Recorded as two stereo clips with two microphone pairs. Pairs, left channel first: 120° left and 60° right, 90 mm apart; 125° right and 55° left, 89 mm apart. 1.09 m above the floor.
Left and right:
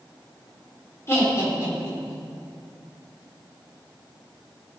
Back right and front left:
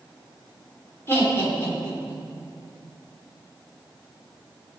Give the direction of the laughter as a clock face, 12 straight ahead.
6 o'clock.